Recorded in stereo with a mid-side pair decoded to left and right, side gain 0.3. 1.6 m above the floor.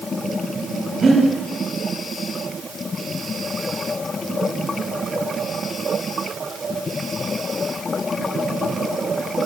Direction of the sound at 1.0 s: 60° right.